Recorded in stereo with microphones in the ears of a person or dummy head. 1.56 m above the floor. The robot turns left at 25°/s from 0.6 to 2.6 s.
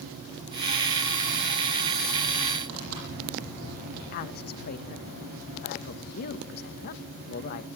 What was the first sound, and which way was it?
Tearing paper, 80° right.